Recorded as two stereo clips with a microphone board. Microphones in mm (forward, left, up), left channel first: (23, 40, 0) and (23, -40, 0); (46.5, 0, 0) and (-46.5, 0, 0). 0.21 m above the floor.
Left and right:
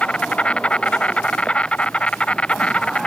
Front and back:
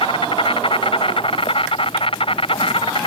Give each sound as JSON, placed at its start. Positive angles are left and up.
{"t": 0.0, "sound": "an insect", "azimuth_deg": 15}